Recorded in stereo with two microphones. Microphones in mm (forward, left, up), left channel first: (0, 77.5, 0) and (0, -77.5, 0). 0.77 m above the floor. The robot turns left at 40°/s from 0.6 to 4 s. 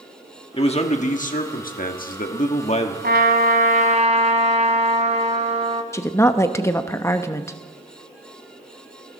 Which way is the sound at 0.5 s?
135° left.